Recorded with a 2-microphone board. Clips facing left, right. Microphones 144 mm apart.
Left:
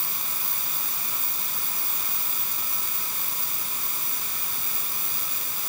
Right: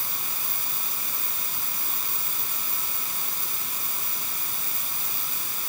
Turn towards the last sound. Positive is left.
No sound to turn to.